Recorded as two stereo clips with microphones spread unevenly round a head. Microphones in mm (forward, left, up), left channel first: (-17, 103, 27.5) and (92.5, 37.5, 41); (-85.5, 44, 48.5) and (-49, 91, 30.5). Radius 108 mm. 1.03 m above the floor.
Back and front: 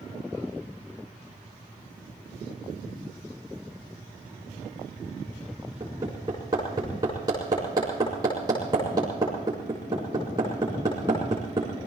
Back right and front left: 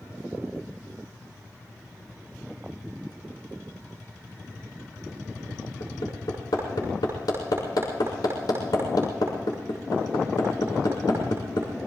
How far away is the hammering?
About 5 m.